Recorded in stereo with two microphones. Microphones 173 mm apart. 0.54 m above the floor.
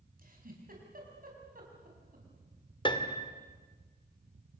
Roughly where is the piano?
Left.